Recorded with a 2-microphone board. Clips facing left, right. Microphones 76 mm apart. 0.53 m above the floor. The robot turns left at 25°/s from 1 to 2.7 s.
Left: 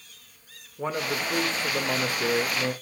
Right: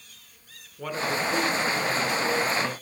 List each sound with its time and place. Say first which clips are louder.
0.8 s a man speaking: right 1 dB; 150° left, 1.9 m; by 2.7 s 105° left, 1.9 m